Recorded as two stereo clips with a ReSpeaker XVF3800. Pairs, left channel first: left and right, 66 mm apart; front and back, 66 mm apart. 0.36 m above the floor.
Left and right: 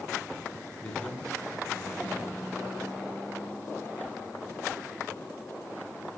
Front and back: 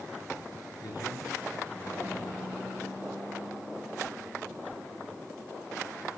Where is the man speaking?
15° left, 5 m.